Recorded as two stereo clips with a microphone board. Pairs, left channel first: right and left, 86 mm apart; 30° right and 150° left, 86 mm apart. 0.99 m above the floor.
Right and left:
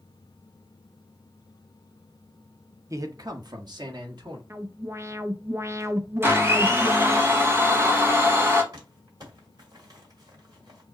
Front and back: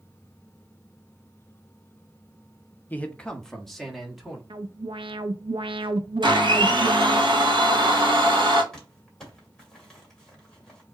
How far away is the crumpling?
About 2.0 m.